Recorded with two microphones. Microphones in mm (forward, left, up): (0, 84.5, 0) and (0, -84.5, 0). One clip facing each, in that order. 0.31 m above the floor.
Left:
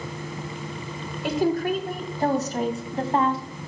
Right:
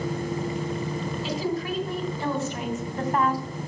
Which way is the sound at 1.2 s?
55° left (ahead or behind).